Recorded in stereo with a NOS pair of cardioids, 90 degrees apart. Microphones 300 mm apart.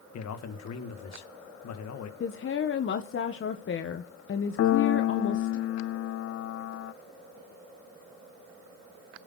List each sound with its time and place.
0.1 s a man speaking: 60° left, 2.5 m
2.2 s a woman speaking: 45° left, 1.3 m
4.6 s a piano: 50° left, 0.6 m